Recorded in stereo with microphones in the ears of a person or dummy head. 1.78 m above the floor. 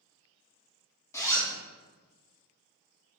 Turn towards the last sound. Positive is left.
turn(degrees=15)  # may be behind; listen again after turning